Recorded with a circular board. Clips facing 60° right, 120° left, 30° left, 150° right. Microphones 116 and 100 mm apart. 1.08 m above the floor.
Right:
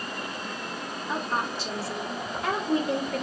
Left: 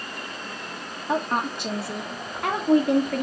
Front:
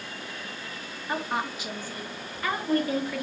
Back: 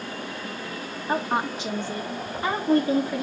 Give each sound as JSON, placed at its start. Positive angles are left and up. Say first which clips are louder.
{"t": 1.1, "sound": "a woman speaking", "louder": "left 5 dB, back 5 dB", "azimuth_deg": 150, "distance_m": 1.8}